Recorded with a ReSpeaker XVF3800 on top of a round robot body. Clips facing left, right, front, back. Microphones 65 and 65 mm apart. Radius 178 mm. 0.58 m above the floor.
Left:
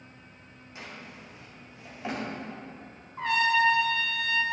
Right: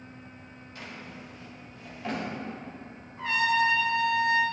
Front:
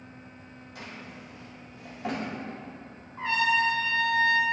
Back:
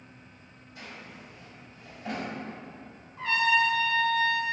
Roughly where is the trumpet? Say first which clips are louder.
Left 1 dB, even; ahead left.